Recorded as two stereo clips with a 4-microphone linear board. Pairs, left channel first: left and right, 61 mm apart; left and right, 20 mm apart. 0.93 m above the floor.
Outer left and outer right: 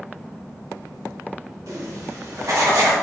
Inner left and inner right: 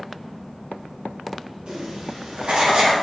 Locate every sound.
1.7 s writing: 60° right (ahead or behind), 1.1 m